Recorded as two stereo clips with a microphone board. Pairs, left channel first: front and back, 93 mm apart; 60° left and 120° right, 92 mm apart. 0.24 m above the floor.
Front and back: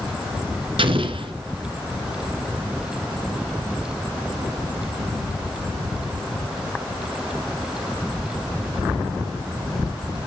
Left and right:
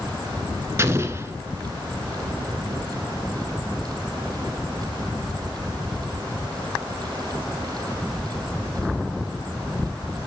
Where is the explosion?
Straight behind, 1.7 m.